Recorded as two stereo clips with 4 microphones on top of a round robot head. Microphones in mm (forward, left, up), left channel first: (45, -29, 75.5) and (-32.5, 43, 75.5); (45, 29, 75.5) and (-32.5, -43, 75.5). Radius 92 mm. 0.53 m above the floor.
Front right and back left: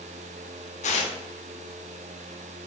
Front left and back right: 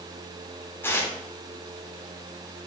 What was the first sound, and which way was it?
Tearing paper, 30° right.